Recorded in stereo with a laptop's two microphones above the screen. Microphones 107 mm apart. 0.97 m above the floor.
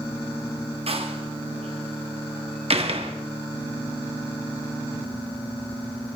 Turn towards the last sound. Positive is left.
turn(degrees=-65)  # may be behind; listen again after turning